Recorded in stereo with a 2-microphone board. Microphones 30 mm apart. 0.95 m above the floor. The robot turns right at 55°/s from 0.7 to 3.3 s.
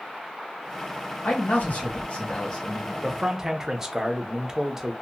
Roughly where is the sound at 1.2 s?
Left.